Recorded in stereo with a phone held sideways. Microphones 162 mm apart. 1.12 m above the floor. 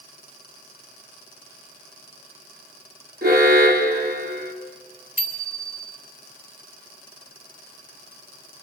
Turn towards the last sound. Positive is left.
turn(degrees=-60)  # may be behind; listen again after turning